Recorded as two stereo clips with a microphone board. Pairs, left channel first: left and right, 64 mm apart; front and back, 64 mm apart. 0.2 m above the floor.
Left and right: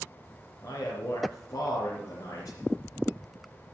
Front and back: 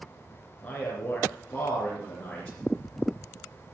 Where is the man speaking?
70° left, 3 m.